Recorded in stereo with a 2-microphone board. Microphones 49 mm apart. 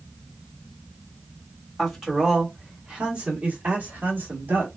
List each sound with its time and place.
1.8 s a man speaking: 5° right (ahead or behind), 1.9 m; by 4.7 s 50° right (ahead or behind), 1.9 m